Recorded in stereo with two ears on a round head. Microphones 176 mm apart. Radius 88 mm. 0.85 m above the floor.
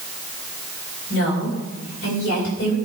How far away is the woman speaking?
About 4.5 m.